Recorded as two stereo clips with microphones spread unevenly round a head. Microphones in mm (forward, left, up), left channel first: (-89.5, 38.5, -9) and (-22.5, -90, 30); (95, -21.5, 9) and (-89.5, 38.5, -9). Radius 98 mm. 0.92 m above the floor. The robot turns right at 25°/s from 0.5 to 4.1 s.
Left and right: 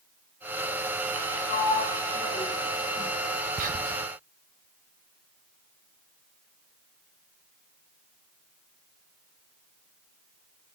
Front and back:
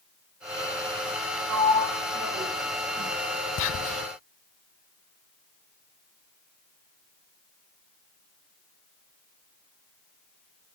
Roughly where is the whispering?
Ahead.